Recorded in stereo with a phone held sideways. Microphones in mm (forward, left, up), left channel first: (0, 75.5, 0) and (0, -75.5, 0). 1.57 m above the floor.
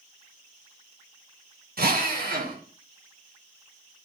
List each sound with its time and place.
1.8 s a drill: 85° right, 1.7 m